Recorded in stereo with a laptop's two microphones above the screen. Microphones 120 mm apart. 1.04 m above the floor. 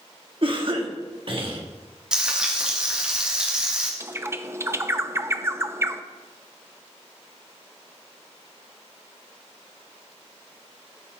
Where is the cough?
45° right (ahead or behind), 1.6 m.